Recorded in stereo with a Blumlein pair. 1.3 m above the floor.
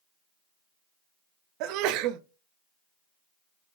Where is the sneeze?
40° right, 0.6 m.